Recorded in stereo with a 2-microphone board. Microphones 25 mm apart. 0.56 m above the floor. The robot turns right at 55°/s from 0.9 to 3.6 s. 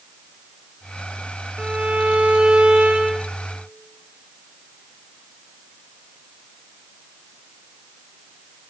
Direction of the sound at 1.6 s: 135° right.